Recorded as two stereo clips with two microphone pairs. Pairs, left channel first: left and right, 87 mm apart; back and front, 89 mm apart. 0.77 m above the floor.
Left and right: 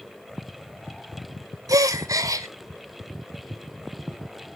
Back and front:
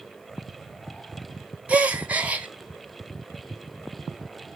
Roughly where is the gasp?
Ahead right.